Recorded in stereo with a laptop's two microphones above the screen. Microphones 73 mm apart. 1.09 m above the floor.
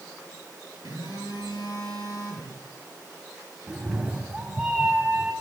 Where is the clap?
No clap in this recording.